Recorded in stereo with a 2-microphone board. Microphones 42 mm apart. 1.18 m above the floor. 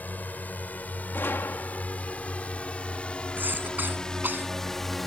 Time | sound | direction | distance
0.0 | a drone | 45° left (ahead or behind) | ?
1.1 | a gunshot | 60° left (ahead or behind) | ?
3.4 | a cough | 50° right (ahead or behind) | ?